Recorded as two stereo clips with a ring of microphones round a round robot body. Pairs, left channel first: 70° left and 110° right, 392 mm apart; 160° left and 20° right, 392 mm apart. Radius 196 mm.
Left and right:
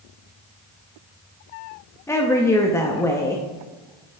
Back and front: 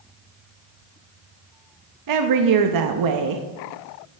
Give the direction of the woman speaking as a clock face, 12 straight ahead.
12 o'clock.